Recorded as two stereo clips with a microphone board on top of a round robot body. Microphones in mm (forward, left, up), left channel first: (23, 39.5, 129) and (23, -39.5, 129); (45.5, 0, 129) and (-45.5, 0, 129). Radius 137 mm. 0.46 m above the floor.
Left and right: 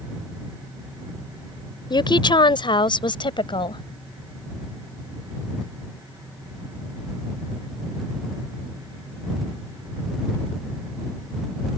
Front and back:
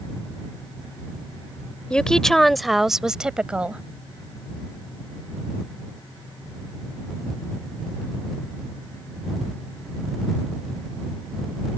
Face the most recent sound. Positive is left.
turn(degrees=105)